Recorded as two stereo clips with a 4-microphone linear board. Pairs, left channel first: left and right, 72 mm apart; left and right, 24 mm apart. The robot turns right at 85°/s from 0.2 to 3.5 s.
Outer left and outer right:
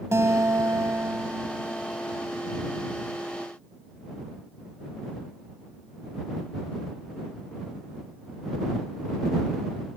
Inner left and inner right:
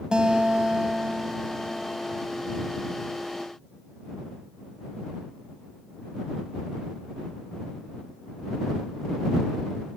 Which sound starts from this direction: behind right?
A guitar, at 0.1 s.